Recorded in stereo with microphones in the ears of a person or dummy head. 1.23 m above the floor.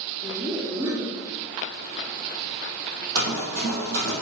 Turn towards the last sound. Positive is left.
turn(degrees=-55)  # may be behind; listen again after turning